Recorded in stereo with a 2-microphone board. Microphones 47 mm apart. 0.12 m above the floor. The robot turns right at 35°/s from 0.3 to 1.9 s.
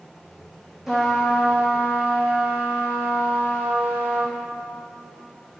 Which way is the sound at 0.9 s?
175° right.